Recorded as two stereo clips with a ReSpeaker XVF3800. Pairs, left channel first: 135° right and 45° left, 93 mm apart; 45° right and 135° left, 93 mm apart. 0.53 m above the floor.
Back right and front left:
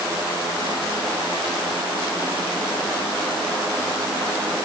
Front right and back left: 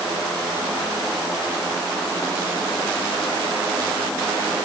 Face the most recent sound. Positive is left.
No sound to turn to.